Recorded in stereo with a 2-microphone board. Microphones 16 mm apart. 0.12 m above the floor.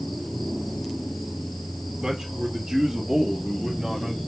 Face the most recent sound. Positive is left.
turn(degrees=-20)  # may be behind; listen again after turning